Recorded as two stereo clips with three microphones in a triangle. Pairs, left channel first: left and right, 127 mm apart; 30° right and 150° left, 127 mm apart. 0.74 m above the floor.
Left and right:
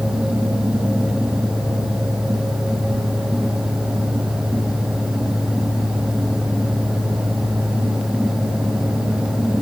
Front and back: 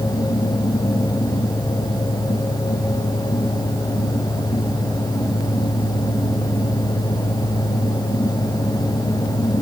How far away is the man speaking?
No man speaking in this recording.